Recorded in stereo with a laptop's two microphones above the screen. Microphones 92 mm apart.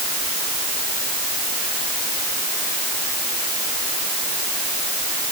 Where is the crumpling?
I don't hear crumpling.